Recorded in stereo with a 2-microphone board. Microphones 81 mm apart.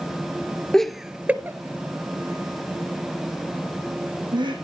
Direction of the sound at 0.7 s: 5° left (ahead or behind).